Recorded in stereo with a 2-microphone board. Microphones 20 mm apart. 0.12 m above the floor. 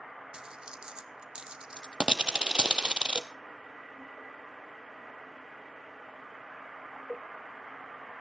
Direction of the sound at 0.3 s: 45° right (ahead or behind).